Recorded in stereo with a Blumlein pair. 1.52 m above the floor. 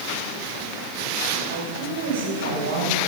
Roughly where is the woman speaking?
Ahead right.